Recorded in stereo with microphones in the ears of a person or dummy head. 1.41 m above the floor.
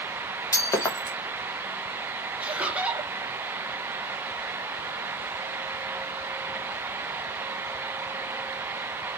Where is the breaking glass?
15° left (ahead or behind), 0.9 m.